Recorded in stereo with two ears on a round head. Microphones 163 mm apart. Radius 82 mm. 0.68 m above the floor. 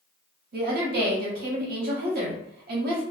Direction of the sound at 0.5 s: 55° right (ahead or behind).